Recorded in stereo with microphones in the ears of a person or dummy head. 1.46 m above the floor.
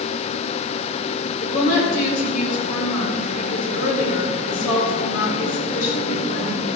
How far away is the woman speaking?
About 5 m.